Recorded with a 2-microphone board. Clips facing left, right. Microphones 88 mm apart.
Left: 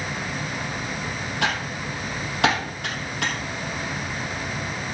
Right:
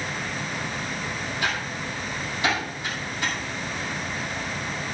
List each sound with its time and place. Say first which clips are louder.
1.4 s typing on a keyboard: left 4 dB; 70° left (ahead or behind), 4 m